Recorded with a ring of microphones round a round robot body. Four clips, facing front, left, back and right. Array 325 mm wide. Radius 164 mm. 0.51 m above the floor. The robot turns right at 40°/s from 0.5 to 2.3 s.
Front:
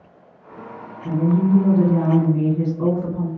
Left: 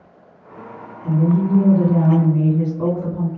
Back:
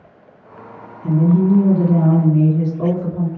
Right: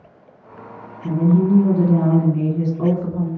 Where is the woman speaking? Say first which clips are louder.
Right 1 dB, back 4 dB; 160° right, 1.9 m; by 3.3 s 105° right, 1.9 m.